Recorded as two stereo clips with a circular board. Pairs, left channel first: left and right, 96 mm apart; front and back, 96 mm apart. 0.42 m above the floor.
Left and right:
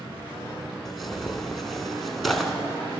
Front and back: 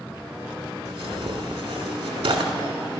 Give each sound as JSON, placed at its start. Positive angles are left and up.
{"t": 0.8, "sound": "tearing paper", "azimuth_deg": 180, "distance_m": 1.2}